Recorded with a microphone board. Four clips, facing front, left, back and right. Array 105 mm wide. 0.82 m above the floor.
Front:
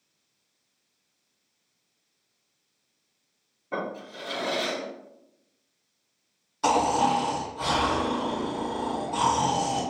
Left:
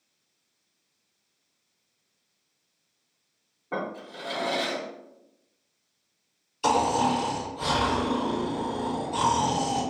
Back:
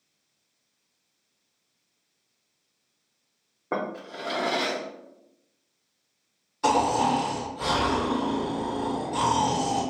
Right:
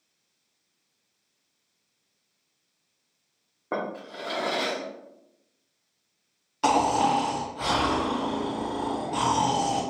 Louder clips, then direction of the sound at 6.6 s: Right 1 dB, even; 85° right.